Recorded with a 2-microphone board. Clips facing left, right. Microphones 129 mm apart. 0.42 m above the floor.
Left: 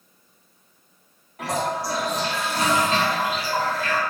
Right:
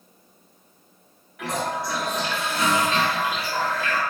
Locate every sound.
1.4 s a toilet flushing: 40° left (ahead or behind), 2 m